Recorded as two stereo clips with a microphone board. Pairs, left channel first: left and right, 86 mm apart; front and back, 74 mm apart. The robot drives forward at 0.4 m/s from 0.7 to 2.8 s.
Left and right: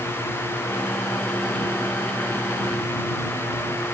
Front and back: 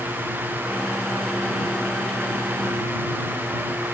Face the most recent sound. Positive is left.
No sound to turn to.